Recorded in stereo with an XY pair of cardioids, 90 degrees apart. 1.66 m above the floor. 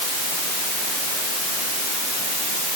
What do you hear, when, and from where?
Only background noise.